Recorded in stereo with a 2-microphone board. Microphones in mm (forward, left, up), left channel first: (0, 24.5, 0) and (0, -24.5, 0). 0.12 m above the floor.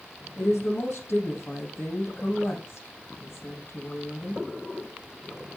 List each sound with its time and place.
0.4 s a woman speaking: 55° left (ahead or behind), 4.5 m